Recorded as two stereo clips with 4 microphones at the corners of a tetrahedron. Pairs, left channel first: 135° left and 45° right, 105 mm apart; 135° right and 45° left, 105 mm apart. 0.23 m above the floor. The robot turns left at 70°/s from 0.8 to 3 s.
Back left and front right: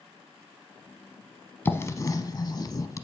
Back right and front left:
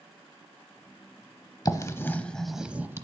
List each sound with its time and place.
1.6 s writing: 165° right, 0.8 m; by 3.0 s 100° left, 0.8 m